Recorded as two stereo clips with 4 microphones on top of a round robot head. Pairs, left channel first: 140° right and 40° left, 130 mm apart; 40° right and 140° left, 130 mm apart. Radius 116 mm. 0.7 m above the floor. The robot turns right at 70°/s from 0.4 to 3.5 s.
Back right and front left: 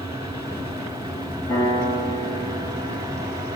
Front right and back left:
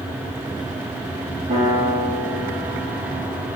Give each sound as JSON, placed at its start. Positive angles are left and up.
{"t": 1.5, "sound": "a piano", "azimuth_deg": 165, "distance_m": 4.0}